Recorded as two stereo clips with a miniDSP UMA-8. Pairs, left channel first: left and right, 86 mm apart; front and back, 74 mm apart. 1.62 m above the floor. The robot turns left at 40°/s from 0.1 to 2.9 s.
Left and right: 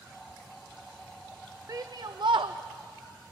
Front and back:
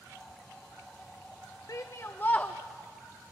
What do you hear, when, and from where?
1.7 s a shout: 40° right, 0.5 m; by 2.6 s 75° right, 0.5 m